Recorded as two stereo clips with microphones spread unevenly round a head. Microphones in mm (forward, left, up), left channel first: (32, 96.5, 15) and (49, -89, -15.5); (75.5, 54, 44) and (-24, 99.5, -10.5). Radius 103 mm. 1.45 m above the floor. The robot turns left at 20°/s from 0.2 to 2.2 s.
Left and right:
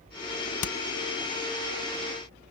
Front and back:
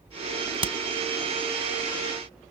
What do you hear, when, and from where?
0.6 s hammering: 115° left; by 0.8 s 110° left